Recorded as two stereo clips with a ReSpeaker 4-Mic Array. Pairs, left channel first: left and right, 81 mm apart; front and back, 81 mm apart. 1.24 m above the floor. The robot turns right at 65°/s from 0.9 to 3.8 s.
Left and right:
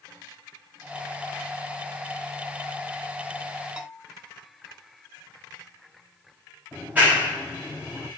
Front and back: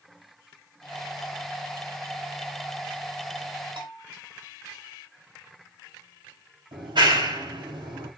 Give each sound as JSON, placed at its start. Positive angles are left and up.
{"t": 3.8, "sound": "a bell", "azimuth_deg": -170, "distance_m": 4.5}
{"t": 6.7, "sound": "a clap", "azimuth_deg": -160, "distance_m": 7.0}